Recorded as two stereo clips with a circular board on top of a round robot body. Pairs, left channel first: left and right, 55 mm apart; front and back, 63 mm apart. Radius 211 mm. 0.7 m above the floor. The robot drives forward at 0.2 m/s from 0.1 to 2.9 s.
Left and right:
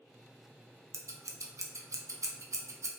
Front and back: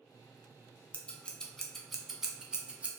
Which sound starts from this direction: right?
Scissors, at 0.9 s.